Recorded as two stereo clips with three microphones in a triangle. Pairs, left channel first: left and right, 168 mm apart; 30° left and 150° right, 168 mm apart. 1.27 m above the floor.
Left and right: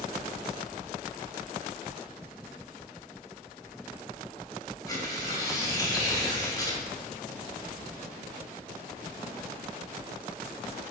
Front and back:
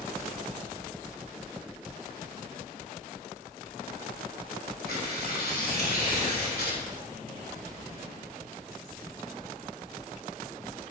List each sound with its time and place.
4.9 s tearing paper: 25° left, 3 m